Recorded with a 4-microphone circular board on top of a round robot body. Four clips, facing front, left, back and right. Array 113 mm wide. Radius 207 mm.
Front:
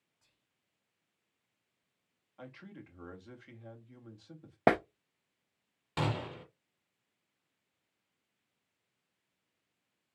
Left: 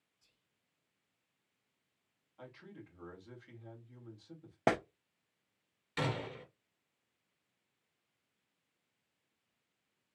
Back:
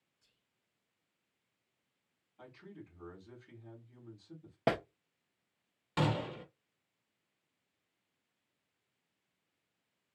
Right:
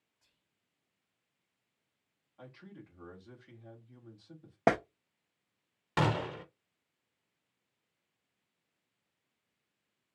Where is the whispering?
40° right, 2.5 m.